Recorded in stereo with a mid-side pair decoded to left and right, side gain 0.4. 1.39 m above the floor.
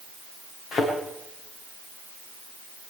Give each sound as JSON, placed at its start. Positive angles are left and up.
{"t": 0.7, "sound": "a thud", "azimuth_deg": 65, "distance_m": 8.5}